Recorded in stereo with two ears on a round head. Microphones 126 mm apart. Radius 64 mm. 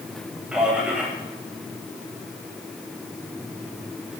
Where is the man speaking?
10° right (ahead or behind), 9 m.